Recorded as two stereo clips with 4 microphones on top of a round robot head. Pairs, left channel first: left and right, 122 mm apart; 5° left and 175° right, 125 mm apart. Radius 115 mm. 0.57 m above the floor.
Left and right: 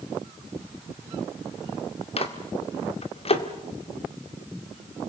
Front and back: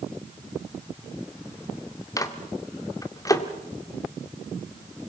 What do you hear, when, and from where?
2.2 s a microwave: 65° left, 1.8 m